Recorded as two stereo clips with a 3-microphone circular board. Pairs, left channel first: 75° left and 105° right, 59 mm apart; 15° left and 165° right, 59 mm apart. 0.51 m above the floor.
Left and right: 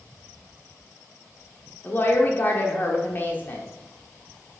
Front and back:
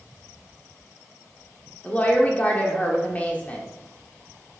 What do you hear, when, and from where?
1.8 s a woman speaking: 60° left, 1.4 m